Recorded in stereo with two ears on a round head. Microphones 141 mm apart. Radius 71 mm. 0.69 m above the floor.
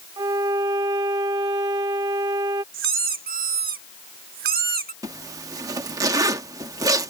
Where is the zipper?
20° right (ahead or behind).